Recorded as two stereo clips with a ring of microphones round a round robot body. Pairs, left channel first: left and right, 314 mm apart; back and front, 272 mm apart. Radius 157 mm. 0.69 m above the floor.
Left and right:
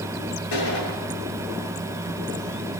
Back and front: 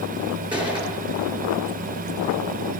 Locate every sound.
0.5 s a gunshot: 75° left, 8 m